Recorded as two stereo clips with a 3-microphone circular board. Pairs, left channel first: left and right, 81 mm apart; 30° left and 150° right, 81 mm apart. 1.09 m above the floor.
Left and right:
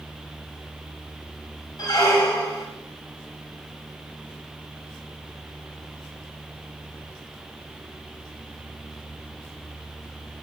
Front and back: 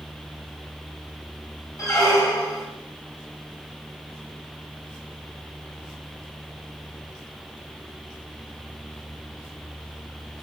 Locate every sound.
1.8 s a squeak: 65° left, 1.9 m